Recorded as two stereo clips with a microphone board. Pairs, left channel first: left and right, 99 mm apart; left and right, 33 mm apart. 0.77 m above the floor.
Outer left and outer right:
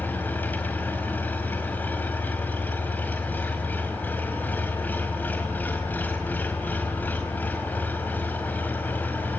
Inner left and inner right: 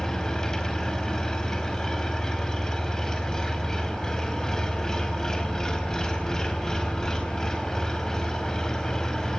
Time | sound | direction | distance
0.0 | an engine running | 20° left (ahead or behind) | 4 m